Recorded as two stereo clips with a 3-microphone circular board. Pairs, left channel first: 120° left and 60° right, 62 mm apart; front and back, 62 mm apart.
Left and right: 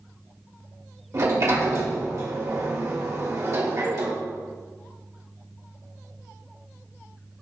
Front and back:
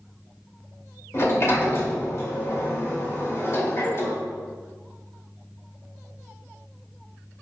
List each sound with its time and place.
1.1 s a sliding door: 35° right, 2 m